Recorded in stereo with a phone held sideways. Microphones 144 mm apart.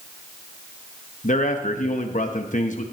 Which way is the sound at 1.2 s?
60° left (ahead or behind).